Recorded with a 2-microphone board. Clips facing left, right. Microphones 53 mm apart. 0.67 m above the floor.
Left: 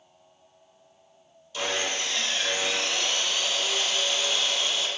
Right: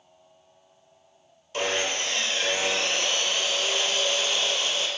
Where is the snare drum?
I don't hear a snare drum.